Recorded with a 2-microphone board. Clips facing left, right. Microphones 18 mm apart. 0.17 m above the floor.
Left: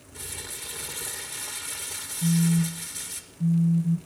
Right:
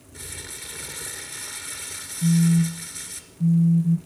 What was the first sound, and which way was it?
Crumpling, 5° right (ahead or behind).